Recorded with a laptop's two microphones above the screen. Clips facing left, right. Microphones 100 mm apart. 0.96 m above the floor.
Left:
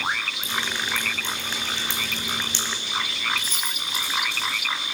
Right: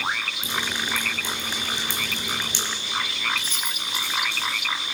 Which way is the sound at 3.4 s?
60° right (ahead or behind).